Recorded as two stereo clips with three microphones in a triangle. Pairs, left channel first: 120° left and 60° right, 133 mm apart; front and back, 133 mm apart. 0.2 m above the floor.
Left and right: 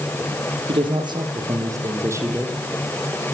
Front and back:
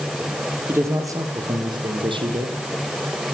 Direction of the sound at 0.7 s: 110° right.